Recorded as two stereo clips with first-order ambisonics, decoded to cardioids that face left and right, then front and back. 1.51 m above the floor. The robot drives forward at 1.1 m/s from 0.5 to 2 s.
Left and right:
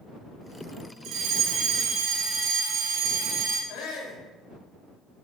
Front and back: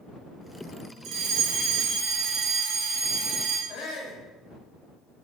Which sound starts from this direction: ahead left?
A shout, at 3.7 s.